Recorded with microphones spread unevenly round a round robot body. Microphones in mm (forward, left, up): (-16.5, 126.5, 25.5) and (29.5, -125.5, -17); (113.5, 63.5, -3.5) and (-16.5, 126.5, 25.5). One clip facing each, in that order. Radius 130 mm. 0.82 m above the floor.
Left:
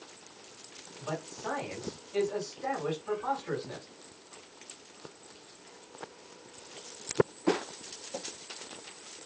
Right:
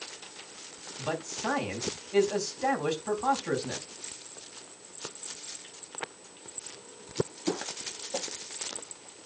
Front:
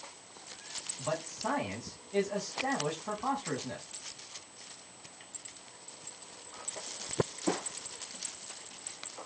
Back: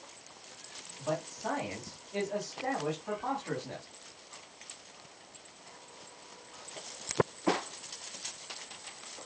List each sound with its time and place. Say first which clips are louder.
1.0 s a man speaking: right 4 dB, back 1 dB; 100° right, 4.5 m